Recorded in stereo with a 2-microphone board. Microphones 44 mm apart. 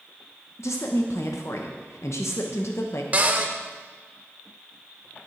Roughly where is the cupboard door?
Right.